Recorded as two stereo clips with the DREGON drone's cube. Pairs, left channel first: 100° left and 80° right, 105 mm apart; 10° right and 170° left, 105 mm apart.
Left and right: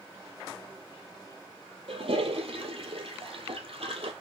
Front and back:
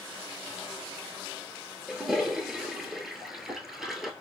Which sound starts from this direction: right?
A toilet flushing, at 1.9 s.